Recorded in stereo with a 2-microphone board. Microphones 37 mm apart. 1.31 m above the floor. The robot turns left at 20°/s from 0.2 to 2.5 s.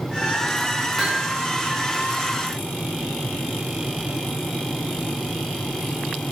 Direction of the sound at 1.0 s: 5° right (ahead or behind).